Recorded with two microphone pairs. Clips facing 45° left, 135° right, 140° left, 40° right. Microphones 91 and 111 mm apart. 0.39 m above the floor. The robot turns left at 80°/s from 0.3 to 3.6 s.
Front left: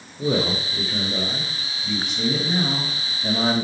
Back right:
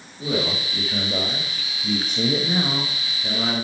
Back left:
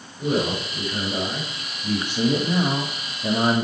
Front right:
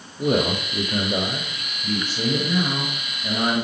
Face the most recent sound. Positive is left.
turn(degrees=90)